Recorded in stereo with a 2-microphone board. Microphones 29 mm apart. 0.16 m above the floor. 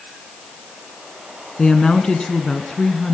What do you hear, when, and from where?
1.6 s a woman speaking: 25° left (ahead or behind), 1.7 m